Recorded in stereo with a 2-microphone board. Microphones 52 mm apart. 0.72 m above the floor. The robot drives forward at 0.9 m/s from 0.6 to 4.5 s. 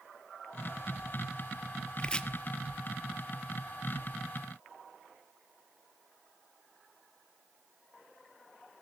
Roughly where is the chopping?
Centre.